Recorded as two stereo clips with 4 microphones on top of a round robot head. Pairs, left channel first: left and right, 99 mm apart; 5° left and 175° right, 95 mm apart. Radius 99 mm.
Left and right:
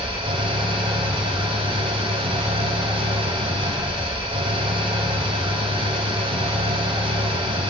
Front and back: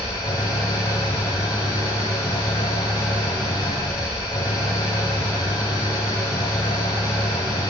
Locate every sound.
0.0 s an engine running: 60° right, 1.6 m